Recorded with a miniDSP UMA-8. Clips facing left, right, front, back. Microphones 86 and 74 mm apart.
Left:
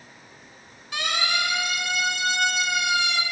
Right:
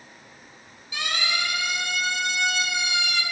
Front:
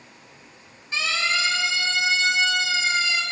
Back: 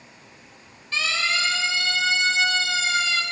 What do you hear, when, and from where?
0.9 s a siren: 65° left, 4 m; by 3.2 s 75° left, 1.5 m